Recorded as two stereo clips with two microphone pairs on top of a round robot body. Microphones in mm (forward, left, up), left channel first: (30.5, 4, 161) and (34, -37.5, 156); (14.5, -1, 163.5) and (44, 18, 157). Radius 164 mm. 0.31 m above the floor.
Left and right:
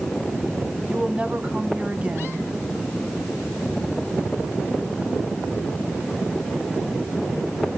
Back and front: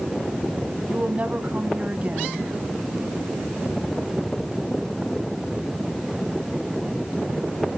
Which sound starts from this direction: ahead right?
A woman speaking, at 0.9 s.